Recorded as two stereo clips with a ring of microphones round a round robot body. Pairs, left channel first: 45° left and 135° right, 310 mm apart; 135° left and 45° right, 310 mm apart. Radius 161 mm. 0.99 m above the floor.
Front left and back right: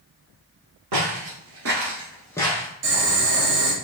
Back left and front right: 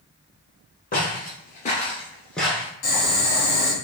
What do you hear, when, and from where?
0.9 s footsteps: 165° right, 1.8 m; by 2.7 s 30° left, 1.0 m
2.8 s boiling: 175° left, 1.7 m